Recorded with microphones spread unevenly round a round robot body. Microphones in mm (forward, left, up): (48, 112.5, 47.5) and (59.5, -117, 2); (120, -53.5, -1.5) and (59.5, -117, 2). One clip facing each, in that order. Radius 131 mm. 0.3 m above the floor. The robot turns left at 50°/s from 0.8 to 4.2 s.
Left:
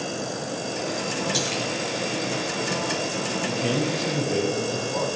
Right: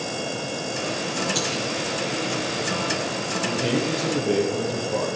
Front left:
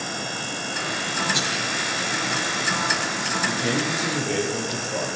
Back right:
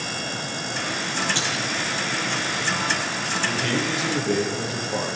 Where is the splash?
90° left, 5.5 m; by 1.6 s 75° left, 5.5 m.